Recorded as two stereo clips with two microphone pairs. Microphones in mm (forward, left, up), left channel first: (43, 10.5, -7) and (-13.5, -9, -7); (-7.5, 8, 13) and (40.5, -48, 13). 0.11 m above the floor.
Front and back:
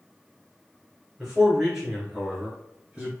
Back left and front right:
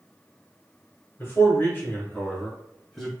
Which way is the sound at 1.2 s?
120° left.